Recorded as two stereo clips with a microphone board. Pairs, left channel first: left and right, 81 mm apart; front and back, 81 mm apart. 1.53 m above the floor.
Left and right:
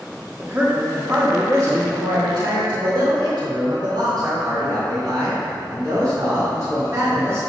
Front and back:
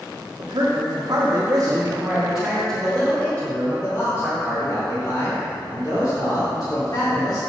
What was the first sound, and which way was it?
A man speaking, 155° right.